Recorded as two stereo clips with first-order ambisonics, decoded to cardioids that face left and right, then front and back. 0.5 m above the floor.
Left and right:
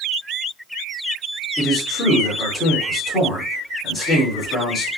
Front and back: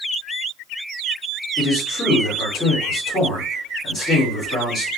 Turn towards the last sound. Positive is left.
turn(degrees=30)